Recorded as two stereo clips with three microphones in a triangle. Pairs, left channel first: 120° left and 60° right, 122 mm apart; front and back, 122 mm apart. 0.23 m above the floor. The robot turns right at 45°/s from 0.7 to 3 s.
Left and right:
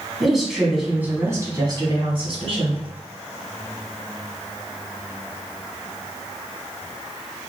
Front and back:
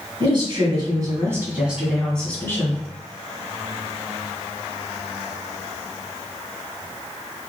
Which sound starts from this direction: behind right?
A woman speaking, at 0.2 s.